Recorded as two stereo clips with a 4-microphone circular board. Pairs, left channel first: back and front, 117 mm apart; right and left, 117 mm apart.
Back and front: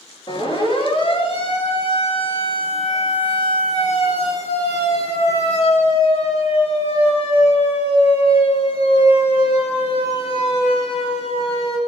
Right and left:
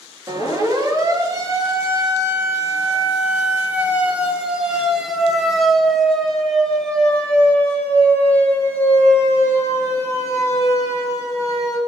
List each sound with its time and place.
0.3 s a siren: 140° left, 5 m; by 11.8 s 145° right, 6 m